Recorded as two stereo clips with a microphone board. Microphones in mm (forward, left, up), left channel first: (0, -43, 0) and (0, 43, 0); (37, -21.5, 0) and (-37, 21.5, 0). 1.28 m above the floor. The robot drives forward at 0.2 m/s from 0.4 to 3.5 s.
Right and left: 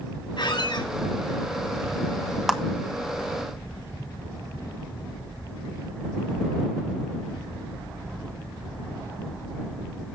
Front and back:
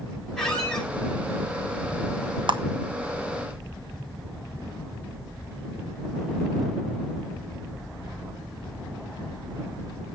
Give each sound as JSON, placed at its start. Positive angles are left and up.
{"t": 0.4, "sound": "a squeak", "azimuth_deg": -115, "distance_m": 4.0}
{"t": 2.5, "sound": "a clap", "azimuth_deg": 175, "distance_m": 1.3}